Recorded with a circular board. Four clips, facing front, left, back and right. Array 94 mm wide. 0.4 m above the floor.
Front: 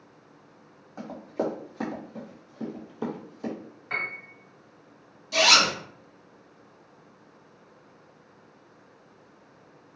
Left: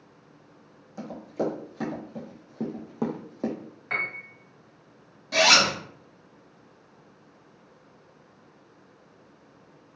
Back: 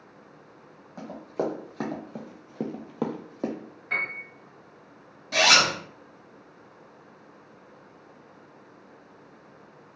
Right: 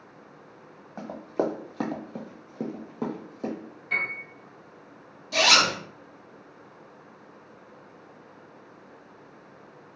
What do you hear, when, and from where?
1.0 s running footsteps: 90° right, 1.3 m; by 3.5 s 150° left, 0.9 m
3.9 s a piano: 85° left, 1.0 m
5.3 s a zipper: 140° left, 1.3 m